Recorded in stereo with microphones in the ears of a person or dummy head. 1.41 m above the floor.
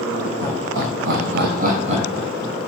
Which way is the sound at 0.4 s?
65° right (ahead or behind).